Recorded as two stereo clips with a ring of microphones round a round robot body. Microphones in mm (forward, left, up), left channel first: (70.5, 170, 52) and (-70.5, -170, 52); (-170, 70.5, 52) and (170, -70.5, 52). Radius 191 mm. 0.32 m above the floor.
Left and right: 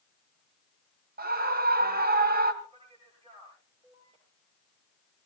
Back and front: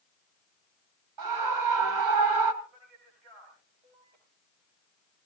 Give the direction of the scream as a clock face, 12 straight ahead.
2 o'clock.